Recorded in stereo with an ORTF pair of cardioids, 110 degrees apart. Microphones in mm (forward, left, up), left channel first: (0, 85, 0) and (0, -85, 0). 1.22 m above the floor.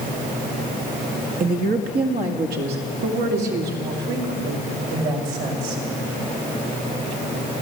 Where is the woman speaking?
55° right, 1.7 m; by 5.8 s 75° right, 5.5 m.